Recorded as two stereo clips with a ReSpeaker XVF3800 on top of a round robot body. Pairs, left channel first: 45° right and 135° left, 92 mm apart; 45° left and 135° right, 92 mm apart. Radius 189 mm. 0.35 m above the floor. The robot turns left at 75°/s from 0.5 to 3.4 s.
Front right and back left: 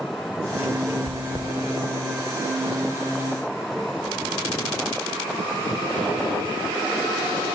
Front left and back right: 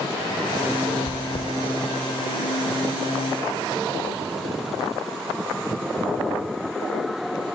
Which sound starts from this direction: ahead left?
Chewing, at 1.1 s.